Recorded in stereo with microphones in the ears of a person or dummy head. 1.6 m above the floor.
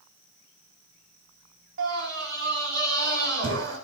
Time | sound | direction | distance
1.8 | a scream | 75° right (ahead or behind) | 4.5 m